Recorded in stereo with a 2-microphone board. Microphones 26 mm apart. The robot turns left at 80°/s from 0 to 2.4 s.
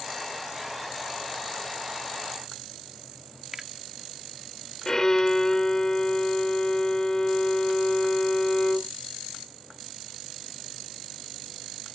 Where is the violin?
25° left (ahead or behind).